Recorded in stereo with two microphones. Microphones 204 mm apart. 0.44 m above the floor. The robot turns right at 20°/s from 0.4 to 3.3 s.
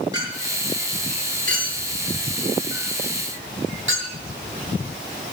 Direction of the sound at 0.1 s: 15° right (ahead or behind).